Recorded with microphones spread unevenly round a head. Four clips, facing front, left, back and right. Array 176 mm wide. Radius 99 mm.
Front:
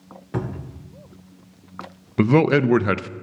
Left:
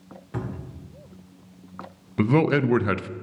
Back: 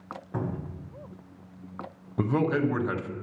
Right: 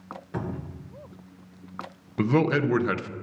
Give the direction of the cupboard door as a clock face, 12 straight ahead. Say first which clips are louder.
Even, front 4 dB; 12 o'clock.